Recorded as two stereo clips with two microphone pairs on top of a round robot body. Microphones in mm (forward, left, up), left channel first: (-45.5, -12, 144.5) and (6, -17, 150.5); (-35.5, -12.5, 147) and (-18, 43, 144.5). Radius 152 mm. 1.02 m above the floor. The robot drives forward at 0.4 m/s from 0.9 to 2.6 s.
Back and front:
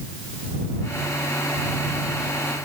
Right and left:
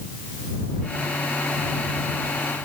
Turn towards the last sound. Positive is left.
No sound to turn to.